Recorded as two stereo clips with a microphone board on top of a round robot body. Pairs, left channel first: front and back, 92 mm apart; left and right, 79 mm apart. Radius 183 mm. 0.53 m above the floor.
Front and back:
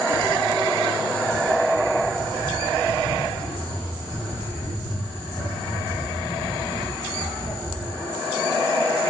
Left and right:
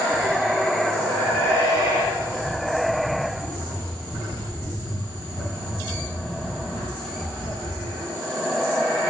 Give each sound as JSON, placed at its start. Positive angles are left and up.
{"t": 0.1, "sound": "footsteps", "azimuth_deg": 0, "distance_m": 0.9}